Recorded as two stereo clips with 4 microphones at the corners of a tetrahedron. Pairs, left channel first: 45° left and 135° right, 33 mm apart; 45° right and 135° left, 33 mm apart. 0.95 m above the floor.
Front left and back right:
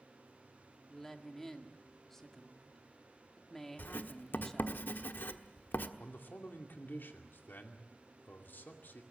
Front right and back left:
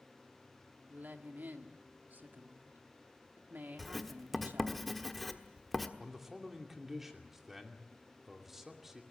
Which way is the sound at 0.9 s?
120° left.